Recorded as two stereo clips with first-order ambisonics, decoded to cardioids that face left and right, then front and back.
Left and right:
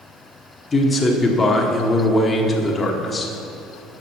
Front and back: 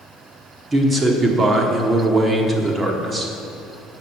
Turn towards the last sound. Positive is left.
turn(degrees=145)